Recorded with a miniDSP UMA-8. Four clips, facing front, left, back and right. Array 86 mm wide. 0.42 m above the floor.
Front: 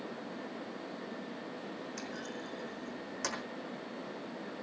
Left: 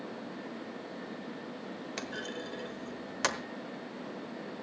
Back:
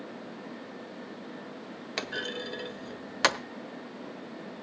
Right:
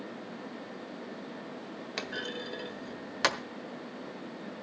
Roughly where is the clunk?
Behind.